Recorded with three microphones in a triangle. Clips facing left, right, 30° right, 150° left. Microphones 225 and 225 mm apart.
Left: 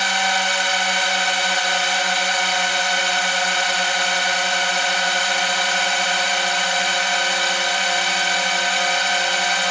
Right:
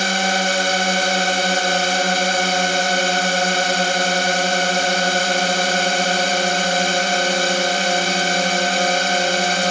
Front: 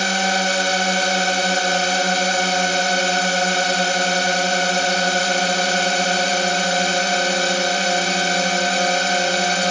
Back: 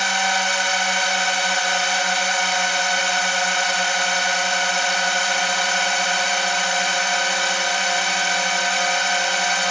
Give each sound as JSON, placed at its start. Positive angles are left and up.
{"t": 0.0, "sound": "a drone", "azimuth_deg": -65}